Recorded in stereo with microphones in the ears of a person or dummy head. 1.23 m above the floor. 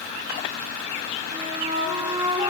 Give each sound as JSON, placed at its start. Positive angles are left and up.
{"t": 1.3, "sound": "a flute", "side_deg": -25, "distance_m": 1.2}